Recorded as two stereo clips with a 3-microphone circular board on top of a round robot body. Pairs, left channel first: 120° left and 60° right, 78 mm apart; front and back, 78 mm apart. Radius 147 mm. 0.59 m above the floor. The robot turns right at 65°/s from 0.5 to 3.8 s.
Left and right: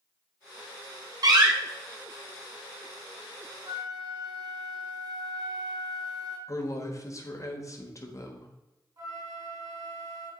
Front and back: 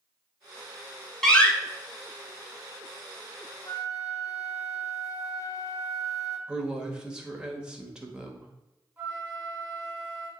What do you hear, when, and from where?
1.2 s a door slam: 85° right, 1.4 m; by 1.5 s 65° right, 1.4 m
3.6 s a flute: 50° right, 1.1 m; by 6.4 s 40° right, 1.1 m
6.5 s a woman speaking: 105° left, 1.5 m
9.0 s a flute: 100° right, 3 m